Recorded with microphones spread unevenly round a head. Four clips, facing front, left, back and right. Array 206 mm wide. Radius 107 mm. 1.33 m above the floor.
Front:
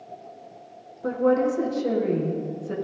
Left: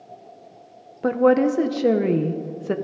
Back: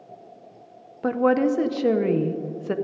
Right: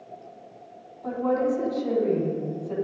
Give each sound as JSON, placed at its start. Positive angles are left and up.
{"t": 1.0, "sound": "a woman speaking", "azimuth_deg": 115, "distance_m": 0.9}